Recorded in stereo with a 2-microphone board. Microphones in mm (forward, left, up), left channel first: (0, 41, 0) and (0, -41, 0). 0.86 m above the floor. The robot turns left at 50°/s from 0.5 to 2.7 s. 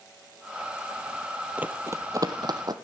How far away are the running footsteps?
About 1.0 m.